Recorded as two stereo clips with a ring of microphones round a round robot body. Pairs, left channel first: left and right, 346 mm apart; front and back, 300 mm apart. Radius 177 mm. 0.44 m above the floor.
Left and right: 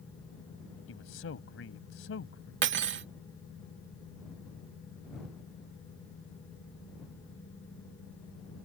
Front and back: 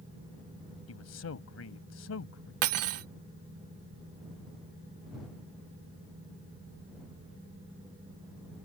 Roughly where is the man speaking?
Ahead left.